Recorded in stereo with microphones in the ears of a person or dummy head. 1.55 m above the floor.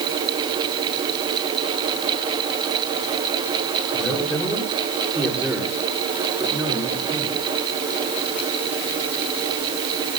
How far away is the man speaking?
About 5 m.